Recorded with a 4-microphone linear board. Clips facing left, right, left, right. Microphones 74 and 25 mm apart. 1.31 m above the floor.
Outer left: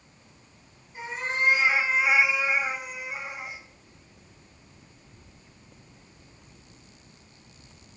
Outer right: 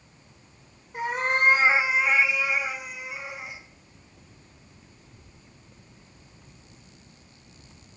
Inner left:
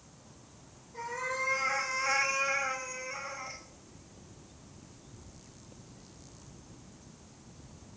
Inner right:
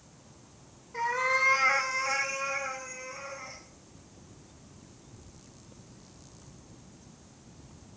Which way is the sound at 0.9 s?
65° right (ahead or behind).